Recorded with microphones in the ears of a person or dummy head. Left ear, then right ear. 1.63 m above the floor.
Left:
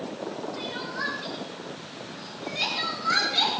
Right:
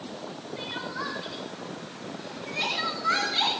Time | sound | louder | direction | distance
0.6 | crying | right 1 dB | 15° right (ahead or behind) | 5.5 m